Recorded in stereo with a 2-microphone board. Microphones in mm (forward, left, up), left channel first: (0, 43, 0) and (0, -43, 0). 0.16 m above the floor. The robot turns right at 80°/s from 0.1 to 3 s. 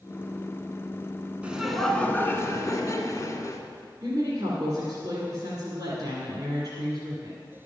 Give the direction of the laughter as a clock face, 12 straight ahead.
1 o'clock.